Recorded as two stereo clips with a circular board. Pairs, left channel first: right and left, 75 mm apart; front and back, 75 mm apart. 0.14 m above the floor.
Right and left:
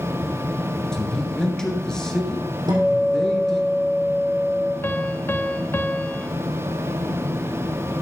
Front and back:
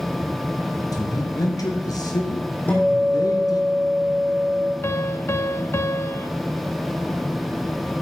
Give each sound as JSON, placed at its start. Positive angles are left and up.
{"t": 0.9, "sound": "a man speaking", "azimuth_deg": -10, "distance_m": 2.0}
{"t": 2.7, "sound": "a guitar", "azimuth_deg": 70, "distance_m": 4.0}
{"t": 4.8, "sound": "a piano", "azimuth_deg": -40, "distance_m": 0.6}